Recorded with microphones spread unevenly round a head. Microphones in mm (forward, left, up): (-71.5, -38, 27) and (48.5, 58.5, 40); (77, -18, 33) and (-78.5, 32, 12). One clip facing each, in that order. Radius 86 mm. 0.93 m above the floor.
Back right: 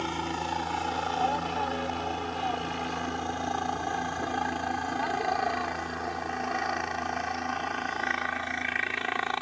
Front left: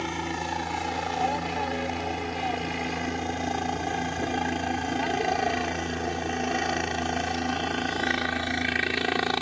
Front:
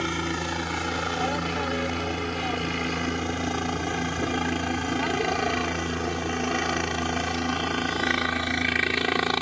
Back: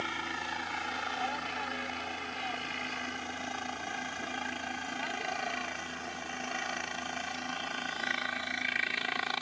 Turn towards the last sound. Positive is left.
turn(degrees=-10)